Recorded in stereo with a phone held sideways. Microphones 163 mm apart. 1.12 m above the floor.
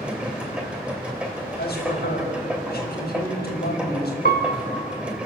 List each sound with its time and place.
0.0 s a machine running: 5° right (ahead or behind), 2.5 m
1.6 s a man speaking: 70° left (ahead or behind), 5.5 m
4.2 s a piano: 60° left (ahead or behind), 1.3 m